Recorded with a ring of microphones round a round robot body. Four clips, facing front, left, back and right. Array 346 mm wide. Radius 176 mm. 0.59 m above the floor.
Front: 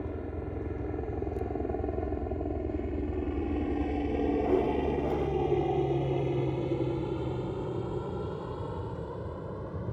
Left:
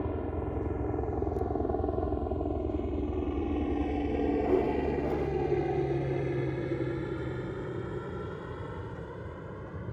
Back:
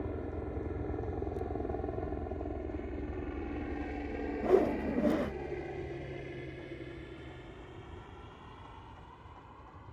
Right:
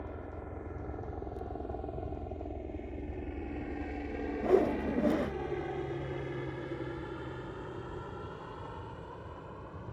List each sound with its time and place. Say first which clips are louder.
0.0 s a helicopter: left 10 dB, front 2 dB; 80° left; by 9.9 s 20° left
4.4 s a whoosh: even, front 1 dB; 135° right